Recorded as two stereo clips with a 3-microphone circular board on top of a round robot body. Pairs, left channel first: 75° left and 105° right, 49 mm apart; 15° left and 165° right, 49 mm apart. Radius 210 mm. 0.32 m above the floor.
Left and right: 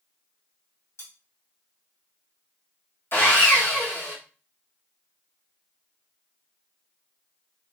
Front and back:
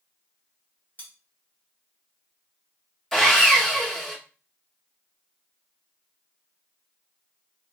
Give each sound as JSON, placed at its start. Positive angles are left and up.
{"t": 1.0, "sound": "cutlery clinking", "azimuth_deg": 75, "distance_m": 2.5}
{"t": 3.1, "sound": "sawing", "azimuth_deg": 95, "distance_m": 2.0}